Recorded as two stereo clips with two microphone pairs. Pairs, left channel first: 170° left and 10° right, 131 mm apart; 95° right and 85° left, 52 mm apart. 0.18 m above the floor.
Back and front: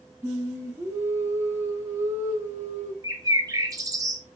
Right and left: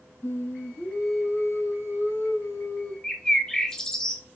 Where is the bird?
35° right, 0.6 m.